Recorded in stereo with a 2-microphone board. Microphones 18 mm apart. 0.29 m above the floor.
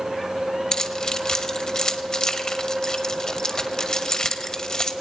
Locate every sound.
0.7 s keys jangling: 35° left (ahead or behind), 1.1 m